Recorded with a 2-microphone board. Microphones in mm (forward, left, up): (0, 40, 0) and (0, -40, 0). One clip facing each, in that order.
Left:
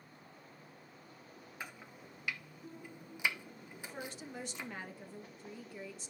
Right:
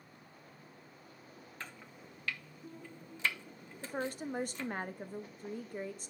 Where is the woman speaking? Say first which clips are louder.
Right 8 dB; 45° right (ahead or behind), 0.7 m.